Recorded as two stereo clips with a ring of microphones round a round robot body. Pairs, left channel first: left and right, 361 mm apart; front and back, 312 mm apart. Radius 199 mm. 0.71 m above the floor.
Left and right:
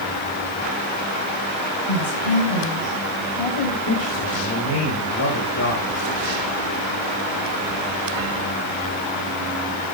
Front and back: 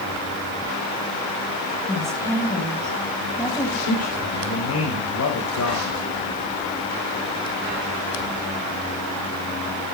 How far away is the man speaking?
About 4.5 m.